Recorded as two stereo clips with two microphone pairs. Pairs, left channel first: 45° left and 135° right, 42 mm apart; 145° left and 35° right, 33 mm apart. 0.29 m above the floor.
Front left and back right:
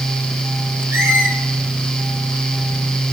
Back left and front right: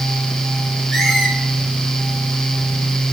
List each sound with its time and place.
0.9 s a squeak: 135° right, 3.5 m